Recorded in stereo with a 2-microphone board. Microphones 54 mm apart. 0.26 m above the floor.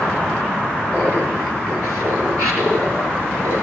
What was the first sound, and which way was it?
Laughter, 60° right (ahead or behind).